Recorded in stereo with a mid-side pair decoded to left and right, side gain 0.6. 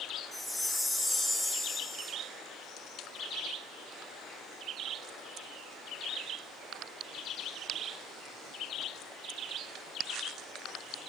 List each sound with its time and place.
0.3 s a chime: 5° left, 9.5 m